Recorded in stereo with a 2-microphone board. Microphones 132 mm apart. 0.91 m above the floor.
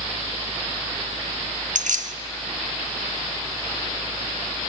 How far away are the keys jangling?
About 1.0 m.